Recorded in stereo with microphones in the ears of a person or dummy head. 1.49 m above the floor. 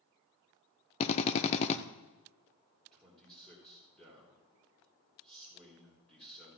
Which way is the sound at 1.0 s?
35° left (ahead or behind).